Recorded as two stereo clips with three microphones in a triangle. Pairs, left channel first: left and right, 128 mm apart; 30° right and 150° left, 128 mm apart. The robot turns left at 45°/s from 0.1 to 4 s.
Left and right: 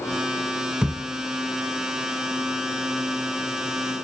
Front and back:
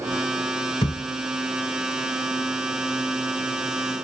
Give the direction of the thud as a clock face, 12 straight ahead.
12 o'clock.